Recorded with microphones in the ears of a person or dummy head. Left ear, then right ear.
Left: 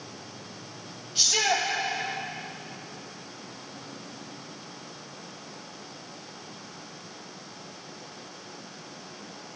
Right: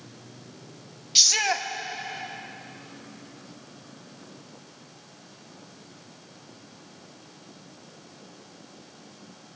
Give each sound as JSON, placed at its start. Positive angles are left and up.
{"t": 1.1, "sound": "a shout", "side_deg": -65, "distance_m": 0.6}